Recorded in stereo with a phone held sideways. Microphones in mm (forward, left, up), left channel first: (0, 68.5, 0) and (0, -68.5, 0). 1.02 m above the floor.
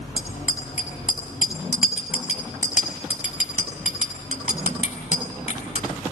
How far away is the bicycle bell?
About 6.5 m.